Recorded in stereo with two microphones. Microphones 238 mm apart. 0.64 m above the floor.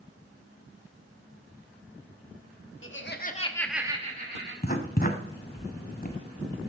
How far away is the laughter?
About 1.5 m.